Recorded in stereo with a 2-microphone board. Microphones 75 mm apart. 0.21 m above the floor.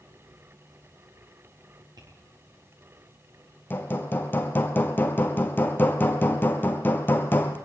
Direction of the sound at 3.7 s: 25° left (ahead or behind).